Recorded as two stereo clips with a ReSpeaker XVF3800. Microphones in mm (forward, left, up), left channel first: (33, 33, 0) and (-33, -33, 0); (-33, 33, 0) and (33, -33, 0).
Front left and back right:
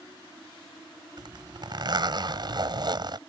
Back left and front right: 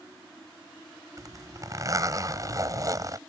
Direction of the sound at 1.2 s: 95° right.